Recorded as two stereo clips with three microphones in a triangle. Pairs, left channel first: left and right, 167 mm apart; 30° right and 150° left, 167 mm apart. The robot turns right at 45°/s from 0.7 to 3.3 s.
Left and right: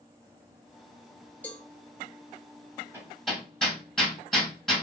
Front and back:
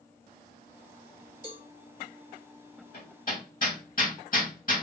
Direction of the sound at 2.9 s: 15° right.